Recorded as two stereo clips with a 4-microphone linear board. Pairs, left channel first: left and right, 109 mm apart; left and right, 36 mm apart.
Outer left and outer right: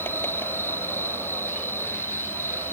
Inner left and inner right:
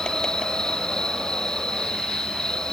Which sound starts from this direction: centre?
An insect, at 0.0 s.